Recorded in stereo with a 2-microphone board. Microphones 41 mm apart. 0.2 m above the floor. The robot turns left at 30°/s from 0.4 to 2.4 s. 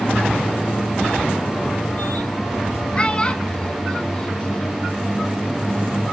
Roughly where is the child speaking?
Left.